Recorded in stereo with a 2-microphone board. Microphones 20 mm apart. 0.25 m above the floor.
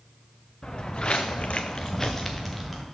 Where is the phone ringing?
I don't hear a phone ringing.